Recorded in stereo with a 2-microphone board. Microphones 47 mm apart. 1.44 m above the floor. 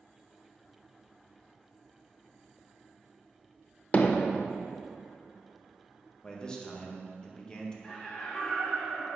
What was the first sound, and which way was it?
Hammering, 30° left (ahead or behind).